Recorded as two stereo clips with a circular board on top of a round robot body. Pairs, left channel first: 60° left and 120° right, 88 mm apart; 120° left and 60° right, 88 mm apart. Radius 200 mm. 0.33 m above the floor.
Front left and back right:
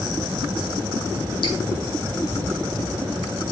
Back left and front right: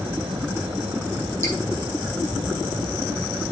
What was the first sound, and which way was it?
Dripping, 60° left.